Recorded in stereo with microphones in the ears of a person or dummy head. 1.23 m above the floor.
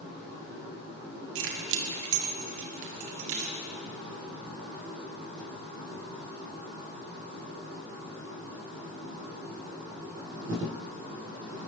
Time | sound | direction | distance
1.4 | keys jangling | 75° right (ahead or behind) | 1.9 m